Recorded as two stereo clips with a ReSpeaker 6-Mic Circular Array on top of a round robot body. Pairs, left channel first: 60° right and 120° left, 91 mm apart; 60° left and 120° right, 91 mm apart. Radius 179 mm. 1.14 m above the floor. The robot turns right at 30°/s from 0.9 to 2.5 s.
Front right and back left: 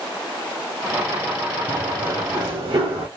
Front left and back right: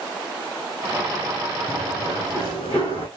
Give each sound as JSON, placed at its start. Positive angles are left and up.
{"t": 1.7, "sound": "running footsteps", "azimuth_deg": 165, "distance_m": 1.8}